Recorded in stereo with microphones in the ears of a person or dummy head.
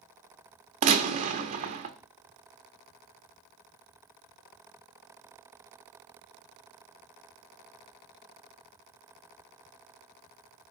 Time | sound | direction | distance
0.8 | a gunshot | 40° right (ahead or behind) | 1.1 m